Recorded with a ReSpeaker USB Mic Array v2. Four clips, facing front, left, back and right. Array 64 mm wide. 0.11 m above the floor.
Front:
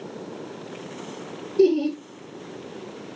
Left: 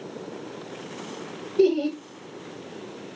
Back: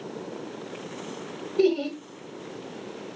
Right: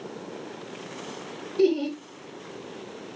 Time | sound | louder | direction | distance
1.6 | laughter | left 2 dB, front 4 dB | straight behind | 1.9 m